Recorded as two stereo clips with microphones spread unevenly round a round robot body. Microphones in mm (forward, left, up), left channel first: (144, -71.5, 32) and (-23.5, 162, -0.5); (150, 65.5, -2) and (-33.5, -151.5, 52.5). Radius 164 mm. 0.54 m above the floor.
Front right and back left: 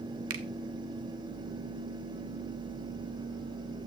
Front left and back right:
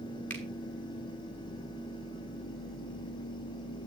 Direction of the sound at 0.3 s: 125° left.